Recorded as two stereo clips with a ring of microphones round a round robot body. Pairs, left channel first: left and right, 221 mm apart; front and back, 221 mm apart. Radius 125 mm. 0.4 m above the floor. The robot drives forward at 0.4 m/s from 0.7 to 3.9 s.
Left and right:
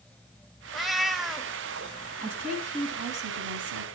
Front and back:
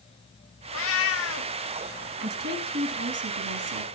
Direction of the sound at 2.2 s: 145° right.